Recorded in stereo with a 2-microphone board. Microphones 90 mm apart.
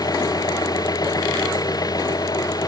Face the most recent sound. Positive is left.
turn(degrees=45)  # may be behind; listen again after turning